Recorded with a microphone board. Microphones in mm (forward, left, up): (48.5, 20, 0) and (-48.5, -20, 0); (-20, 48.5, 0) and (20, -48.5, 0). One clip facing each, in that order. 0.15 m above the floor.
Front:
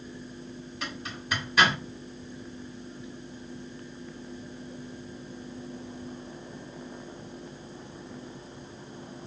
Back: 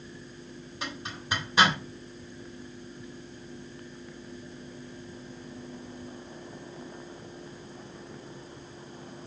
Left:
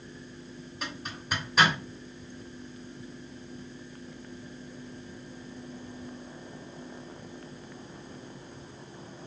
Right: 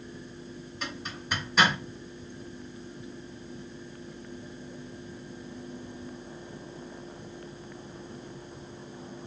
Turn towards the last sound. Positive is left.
turn(degrees=-160)